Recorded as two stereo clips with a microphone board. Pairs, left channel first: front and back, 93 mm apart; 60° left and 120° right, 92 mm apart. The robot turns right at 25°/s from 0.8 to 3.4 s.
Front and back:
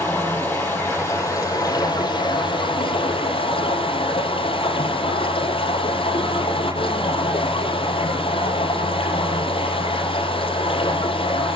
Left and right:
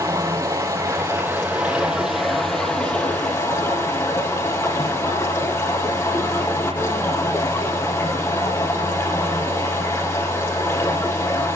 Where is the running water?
70° right, 5.5 m; by 11.6 s 5° right, 5.5 m.